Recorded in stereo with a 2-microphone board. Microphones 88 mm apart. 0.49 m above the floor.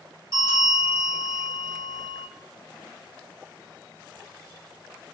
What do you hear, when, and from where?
0.3 s a bell: 60° left (ahead or behind), 2.0 m